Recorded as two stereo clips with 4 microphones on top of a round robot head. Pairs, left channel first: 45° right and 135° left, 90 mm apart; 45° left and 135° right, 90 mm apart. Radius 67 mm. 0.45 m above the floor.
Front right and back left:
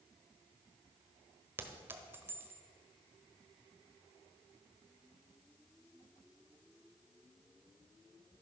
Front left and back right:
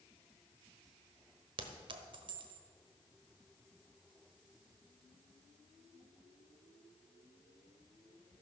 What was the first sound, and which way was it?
A clink, 160° right.